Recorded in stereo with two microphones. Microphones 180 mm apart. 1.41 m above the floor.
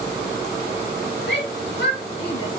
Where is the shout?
70° left (ahead or behind), 2.5 m; by 2.6 s 75° left (ahead or behind), 1.9 m.